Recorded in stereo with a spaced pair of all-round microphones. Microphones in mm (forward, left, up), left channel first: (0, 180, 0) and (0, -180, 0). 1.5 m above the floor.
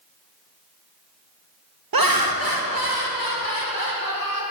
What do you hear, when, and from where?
1.9 s laughter: 70° right (ahead or behind), 0.6 m; by 4.4 s 65° right (ahead or behind), 2.5 m